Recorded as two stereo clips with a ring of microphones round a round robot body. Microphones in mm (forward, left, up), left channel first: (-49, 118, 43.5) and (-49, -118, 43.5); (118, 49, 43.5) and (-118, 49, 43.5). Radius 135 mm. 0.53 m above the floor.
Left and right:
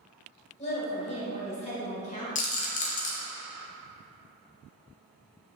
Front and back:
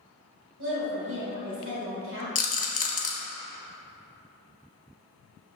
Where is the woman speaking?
150° left, 1.8 m.